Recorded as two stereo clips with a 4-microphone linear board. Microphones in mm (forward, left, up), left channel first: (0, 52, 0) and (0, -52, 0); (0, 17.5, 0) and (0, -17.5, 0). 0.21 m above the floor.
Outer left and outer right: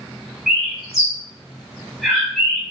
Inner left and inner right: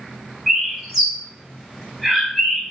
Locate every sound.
0.5 s a bird: 5° right (ahead or behind), 0.9 m